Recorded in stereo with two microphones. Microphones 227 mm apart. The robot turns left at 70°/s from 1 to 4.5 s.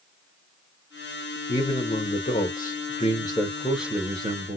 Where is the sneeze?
I don't hear a sneeze.